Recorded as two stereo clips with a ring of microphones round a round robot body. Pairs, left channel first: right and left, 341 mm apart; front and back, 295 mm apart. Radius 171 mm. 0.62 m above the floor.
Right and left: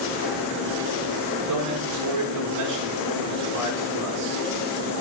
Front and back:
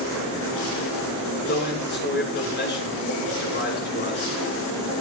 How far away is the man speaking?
About 7.5 m.